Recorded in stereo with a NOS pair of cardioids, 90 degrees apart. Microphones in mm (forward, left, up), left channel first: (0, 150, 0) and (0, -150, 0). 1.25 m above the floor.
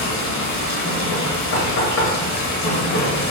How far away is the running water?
About 1.0 m.